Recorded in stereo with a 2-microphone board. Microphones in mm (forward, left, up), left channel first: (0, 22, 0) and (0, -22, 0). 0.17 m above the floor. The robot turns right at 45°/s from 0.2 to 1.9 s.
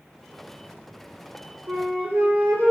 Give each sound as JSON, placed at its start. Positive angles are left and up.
{"t": 1.7, "sound": "a flute", "side_deg": -85, "distance_m": 1.4}